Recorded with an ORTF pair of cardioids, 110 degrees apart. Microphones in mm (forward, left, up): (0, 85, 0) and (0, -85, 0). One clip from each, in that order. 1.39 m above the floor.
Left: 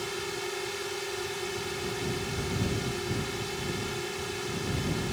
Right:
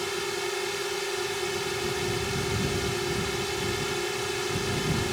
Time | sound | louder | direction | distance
0.0 | a drone | right 4 dB | 20° right | ?